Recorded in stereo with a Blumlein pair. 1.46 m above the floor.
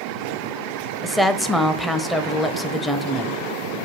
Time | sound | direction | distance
1.0 | a woman speaking | straight ahead | 0.6 m